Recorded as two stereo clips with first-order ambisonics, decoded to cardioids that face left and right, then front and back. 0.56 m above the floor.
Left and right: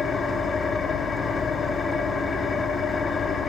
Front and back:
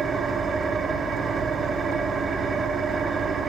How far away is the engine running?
About 0.9 m.